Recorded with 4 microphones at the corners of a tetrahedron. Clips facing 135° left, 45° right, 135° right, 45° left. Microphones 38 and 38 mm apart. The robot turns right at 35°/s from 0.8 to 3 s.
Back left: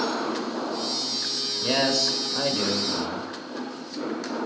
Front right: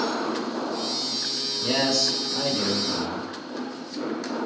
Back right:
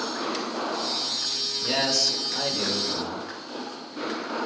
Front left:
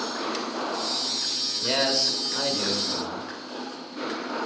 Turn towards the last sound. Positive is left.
turn(degrees=140)